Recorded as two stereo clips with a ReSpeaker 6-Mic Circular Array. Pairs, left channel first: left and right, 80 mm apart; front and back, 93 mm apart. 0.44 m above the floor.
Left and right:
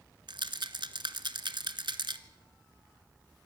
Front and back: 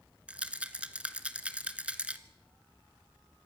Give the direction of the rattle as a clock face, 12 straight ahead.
3 o'clock.